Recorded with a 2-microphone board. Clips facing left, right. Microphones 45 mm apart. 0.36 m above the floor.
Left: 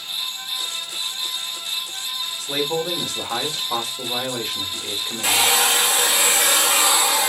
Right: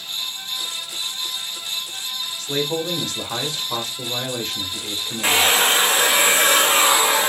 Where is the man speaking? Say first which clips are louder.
Even; 10° left (ahead or behind), 0.9 m.